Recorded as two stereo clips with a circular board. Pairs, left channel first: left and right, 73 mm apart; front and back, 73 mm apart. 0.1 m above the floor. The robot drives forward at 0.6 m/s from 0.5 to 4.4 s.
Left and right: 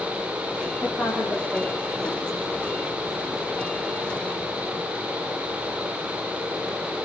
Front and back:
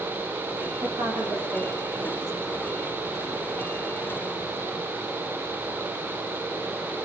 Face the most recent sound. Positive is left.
turn(degrees=160)